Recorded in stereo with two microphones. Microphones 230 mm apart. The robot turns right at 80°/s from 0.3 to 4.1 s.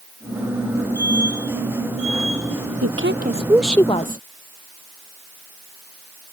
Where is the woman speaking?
70° right; by 4.2 s 35° left.